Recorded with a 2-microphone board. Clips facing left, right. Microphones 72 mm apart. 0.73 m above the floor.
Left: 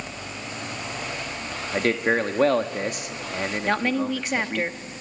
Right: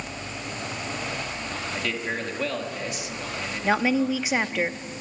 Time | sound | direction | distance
1.7 | a man speaking | 50° left (ahead or behind) | 1.1 m
3.6 | a woman speaking | 5° right (ahead or behind) | 0.7 m